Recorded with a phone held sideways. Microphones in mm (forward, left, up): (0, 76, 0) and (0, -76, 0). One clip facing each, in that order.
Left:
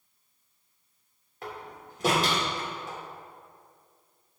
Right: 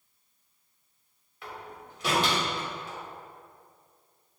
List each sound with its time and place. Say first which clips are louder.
1.4 s a door slam: left 2 dB; 45° left (ahead or behind), 3 m